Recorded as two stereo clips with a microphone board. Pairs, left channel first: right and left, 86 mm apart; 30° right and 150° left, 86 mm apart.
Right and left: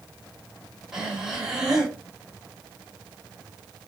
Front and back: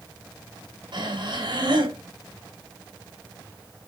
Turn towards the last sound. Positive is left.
turn(degrees=175)